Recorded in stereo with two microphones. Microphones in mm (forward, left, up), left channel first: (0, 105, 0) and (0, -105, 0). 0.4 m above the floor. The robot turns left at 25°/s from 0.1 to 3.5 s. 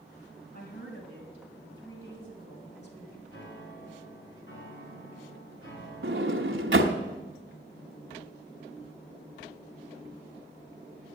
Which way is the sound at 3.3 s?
70° left (ahead or behind).